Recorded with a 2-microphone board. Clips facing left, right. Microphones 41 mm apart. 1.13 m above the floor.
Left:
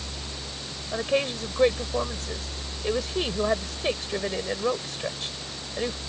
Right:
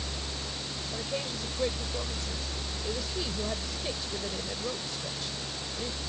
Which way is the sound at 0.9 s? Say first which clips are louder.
Left 11 dB; 55° left (ahead or behind).